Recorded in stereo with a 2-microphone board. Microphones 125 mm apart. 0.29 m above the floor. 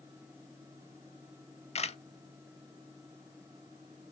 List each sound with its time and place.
1.8 s a camera shutter: 55° left (ahead or behind), 0.5 m